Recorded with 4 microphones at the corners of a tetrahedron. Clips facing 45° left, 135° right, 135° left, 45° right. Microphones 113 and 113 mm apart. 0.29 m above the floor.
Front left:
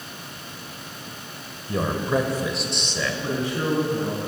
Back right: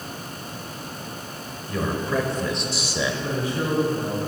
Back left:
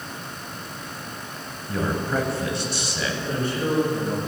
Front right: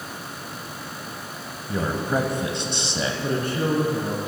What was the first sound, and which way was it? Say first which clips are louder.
A man speaking: front left 2 dB, front right 1 dB; 30° left.